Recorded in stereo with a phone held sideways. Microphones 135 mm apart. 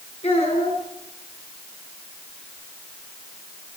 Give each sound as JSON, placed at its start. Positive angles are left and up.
{"t": 0.2, "sound": "a child speaking", "side_deg": 45, "distance_m": 9.5}